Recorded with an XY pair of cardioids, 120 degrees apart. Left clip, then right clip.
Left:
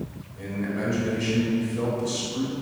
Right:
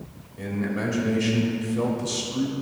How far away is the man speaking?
About 3 m.